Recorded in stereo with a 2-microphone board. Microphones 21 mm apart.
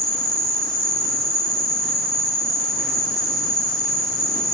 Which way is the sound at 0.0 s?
65° left (ahead or behind).